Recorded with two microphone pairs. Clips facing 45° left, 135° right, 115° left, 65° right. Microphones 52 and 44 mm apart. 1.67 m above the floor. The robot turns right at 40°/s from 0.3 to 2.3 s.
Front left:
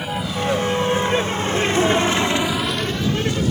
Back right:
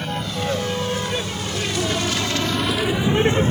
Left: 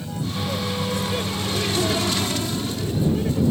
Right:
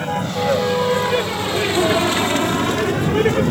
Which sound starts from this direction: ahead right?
A vehicle, at 0.0 s.